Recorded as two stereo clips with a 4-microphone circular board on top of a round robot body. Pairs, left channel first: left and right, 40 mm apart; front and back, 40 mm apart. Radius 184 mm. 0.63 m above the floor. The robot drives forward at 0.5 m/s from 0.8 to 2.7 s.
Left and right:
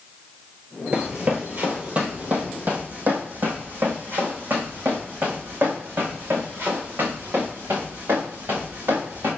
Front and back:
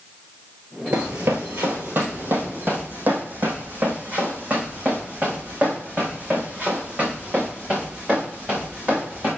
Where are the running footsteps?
155° right, 0.8 m; by 9.3 s 115° right, 6 m.